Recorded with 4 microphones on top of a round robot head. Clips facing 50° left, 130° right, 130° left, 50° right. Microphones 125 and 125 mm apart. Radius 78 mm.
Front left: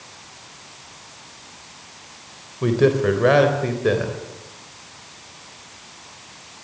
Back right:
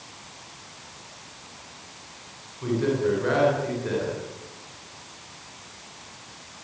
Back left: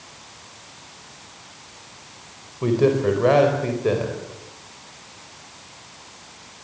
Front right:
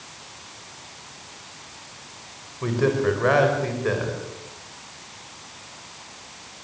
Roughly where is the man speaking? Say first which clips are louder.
Front left 6 dB, back left 3 dB; ahead left.